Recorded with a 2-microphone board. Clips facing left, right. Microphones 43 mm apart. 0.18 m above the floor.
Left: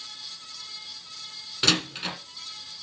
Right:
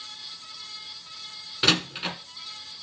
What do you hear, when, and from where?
1.6 s a door slam: 10° right (ahead or behind), 1.4 m